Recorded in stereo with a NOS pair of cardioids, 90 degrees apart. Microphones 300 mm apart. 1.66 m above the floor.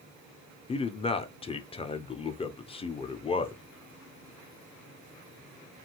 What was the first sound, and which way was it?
A man speaking, 20° left.